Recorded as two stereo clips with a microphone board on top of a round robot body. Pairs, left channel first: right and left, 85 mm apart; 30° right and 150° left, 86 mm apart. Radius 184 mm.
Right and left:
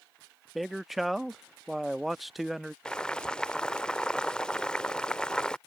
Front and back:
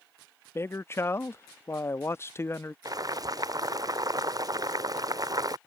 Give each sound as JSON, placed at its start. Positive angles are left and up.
{"t": 0.6, "sound": "a man speaking", "azimuth_deg": 5}
{"t": 2.9, "sound": "boiling", "azimuth_deg": -170}